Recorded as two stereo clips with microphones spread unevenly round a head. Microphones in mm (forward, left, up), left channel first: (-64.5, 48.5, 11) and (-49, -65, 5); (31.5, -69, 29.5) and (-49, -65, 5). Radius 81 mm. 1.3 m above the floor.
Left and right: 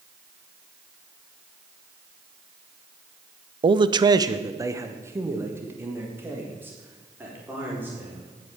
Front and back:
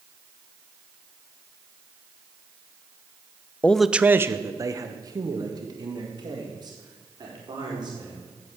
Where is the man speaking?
85° right, 0.5 m; by 8.2 s 155° right, 4.5 m.